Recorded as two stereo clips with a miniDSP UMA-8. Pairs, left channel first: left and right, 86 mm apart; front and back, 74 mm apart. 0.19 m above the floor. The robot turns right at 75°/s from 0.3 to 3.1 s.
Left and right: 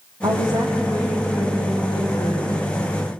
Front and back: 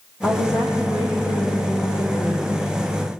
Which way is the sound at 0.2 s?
60° right.